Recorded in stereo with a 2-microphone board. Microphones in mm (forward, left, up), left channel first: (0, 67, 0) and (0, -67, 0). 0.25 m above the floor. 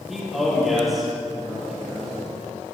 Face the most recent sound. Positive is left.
turn(degrees=0)  # may be behind; listen again after turning